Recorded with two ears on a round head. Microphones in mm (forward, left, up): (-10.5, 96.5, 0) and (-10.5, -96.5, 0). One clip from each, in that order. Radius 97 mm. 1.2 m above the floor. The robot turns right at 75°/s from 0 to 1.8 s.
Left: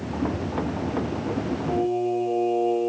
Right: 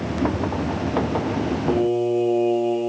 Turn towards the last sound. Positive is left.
turn(degrees=-65)  # may be behind; listen again after turning